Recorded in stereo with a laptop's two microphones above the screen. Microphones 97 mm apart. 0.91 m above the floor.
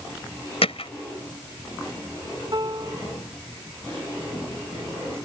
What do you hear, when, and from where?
0.6 s hammering: 85° left
2.5 s a piano: 45° right (ahead or behind)